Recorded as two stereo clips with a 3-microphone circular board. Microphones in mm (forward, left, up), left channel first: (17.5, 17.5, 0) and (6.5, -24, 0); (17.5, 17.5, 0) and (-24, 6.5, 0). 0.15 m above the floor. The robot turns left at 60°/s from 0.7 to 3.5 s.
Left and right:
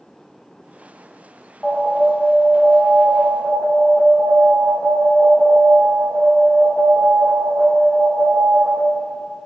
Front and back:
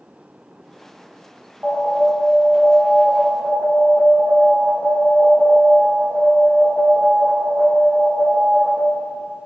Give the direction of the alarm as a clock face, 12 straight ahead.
7 o'clock.